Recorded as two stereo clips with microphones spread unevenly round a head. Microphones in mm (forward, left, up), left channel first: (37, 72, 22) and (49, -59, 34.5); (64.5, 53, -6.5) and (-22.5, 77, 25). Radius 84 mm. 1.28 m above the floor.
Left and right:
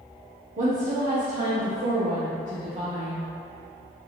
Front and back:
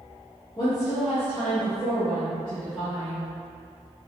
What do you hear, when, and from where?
0.6 s a woman speaking: 60° right, 1.0 m; by 3.3 s 135° right, 1.6 m